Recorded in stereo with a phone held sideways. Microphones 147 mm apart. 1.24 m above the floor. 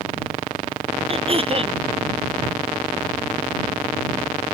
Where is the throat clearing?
40° right (ahead or behind).